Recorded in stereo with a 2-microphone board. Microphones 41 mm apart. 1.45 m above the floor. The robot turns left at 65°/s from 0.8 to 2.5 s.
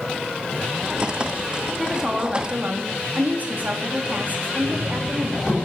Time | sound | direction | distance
1.8 | a woman speaking | straight ahead | 3 m
4.6 | knocking | 20° right (ahead or behind) | 8 m